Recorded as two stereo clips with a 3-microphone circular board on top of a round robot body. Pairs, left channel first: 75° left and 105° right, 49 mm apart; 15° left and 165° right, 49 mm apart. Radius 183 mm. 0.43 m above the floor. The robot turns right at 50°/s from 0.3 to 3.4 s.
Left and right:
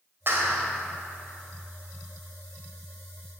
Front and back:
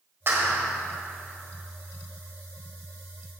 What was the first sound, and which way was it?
A clap, 135° right.